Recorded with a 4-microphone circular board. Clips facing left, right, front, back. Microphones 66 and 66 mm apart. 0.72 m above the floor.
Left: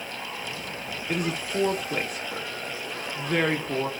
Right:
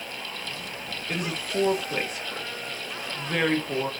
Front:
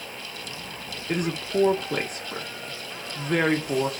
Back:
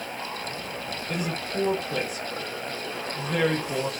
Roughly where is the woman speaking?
Ahead.